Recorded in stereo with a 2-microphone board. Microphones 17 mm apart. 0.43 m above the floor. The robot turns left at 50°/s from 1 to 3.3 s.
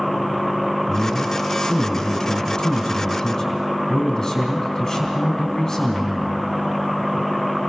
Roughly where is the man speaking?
Behind left.